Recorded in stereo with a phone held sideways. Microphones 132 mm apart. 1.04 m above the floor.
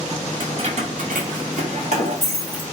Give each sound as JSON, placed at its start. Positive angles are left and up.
{"t": 0.4, "sound": "keys jangling", "side_deg": -40, "distance_m": 0.7}